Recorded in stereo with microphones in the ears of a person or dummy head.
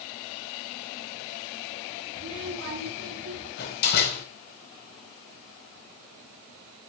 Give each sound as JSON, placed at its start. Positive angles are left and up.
{"t": 2.1, "sound": "a child speaking", "side_deg": -60, "distance_m": 6.0}
{"t": 3.6, "sound": "a door slam", "side_deg": 60, "distance_m": 3.5}